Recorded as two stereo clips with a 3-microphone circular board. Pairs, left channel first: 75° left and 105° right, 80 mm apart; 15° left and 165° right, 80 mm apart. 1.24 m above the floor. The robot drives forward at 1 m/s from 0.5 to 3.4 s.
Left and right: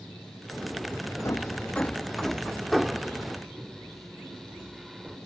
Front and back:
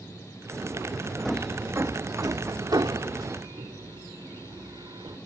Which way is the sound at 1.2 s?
95° left.